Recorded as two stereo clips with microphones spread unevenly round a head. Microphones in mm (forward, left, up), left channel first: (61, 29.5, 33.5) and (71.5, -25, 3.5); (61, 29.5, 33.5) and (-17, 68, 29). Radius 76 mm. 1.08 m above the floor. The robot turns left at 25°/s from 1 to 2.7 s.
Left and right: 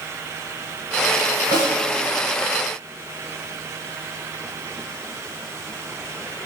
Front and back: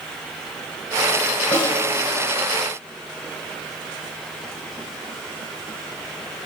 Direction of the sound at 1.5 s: 85° right.